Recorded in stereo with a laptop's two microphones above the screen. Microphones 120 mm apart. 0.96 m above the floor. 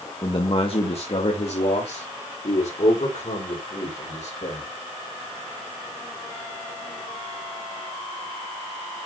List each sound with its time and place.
0.2 s a man speaking: 40° left (ahead or behind), 1.1 m; by 4.7 s 70° left (ahead or behind), 4.5 m